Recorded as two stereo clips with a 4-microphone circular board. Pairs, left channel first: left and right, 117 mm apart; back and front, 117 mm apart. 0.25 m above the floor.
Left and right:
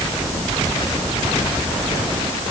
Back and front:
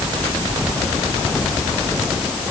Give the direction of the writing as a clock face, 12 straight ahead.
I don't hear writing.